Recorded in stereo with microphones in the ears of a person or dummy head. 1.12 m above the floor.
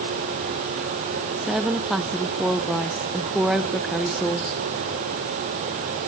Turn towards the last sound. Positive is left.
turn(degrees=-5)  # may be behind; listen again after turning